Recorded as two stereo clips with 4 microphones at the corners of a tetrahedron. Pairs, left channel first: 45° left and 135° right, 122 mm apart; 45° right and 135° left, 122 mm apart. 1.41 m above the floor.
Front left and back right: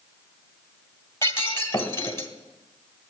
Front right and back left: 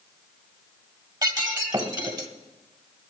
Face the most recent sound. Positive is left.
turn(degrees=100)